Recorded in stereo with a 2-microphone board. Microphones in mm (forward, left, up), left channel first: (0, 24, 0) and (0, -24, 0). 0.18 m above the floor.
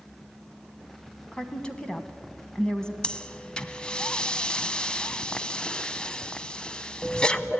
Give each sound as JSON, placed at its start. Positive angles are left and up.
{"t": 1.3, "sound": "a woman speaking", "side_deg": 15, "distance_m": 1.4}
{"t": 3.0, "sound": "breathing", "side_deg": 20, "distance_m": 0.7}